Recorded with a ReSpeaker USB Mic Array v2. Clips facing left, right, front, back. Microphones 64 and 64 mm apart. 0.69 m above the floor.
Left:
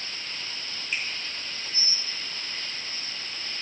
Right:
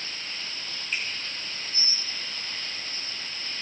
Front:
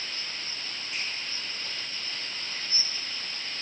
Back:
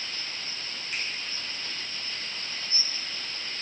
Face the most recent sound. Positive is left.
turn(degrees=175)